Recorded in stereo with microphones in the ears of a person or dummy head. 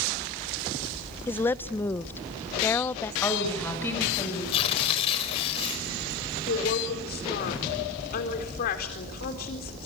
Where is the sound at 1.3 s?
20° left (ahead or behind), 0.5 m.